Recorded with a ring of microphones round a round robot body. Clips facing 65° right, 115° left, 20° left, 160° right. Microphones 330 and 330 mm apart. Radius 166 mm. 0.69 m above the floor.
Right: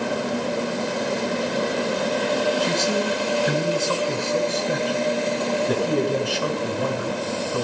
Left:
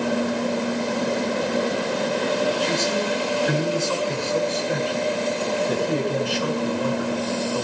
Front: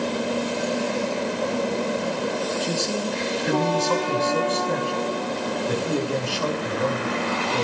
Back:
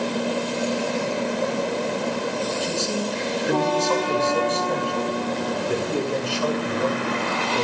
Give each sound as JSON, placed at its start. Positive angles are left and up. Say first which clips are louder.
{"t": 2.6, "sound": "a man speaking", "louder": "right 1 dB, even", "azimuth_deg": -45, "distance_m": 6.5}